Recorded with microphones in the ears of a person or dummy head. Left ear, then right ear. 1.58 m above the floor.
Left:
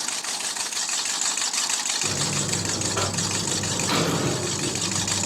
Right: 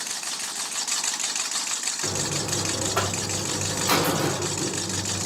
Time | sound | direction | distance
2.0 | a buzzer | 25° right (ahead or behind) | 1.9 m